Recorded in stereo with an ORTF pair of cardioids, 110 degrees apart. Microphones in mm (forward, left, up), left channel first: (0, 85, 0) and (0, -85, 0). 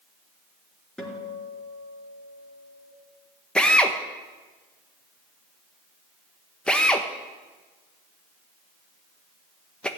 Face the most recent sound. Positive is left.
turn(degrees=5)